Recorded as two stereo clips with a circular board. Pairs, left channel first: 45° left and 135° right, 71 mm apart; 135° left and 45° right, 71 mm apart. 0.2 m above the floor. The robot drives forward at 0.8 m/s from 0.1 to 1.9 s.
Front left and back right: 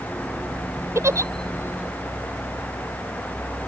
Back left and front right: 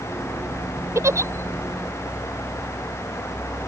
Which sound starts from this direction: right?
A giggle, at 0.9 s.